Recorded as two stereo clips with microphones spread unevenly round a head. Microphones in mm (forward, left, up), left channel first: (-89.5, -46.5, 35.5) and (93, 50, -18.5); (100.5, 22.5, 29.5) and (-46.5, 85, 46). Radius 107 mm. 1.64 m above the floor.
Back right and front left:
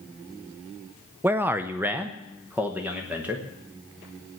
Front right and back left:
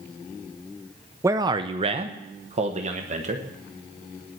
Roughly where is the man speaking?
Behind left.